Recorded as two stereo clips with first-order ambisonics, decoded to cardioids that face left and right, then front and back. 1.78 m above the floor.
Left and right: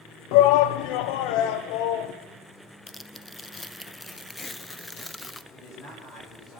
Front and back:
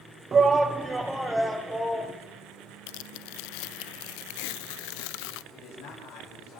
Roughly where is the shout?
Left.